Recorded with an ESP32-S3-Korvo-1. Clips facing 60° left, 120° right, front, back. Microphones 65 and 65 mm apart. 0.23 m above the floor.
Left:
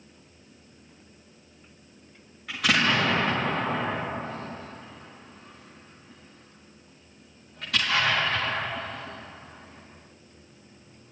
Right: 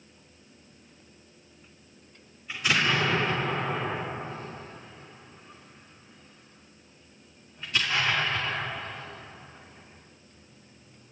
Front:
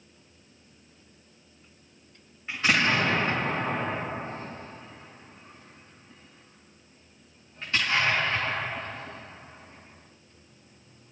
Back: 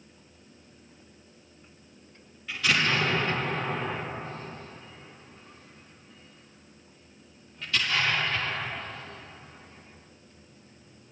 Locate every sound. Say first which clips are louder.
2.5 s an explosion: left 2 dB, front 2 dB; 60° left, 7.5 m